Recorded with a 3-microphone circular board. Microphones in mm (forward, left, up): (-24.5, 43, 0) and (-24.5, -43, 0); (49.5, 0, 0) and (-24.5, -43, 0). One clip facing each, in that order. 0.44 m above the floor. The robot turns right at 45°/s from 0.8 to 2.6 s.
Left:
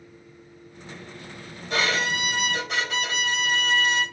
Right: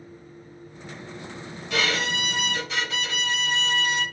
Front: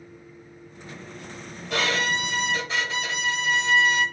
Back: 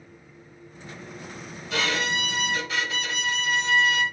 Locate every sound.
1.7 s a violin: 45° left, 1.9 m; by 4.0 s 85° left, 1.9 m